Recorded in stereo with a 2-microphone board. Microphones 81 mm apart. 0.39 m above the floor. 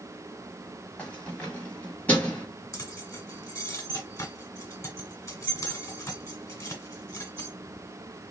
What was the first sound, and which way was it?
Keys jangling, 20° left (ahead or behind).